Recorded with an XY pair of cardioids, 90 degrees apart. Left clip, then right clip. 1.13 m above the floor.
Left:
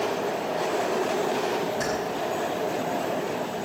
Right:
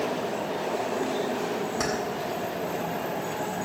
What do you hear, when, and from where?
1.8 s keys jangling: 50° right, 7 m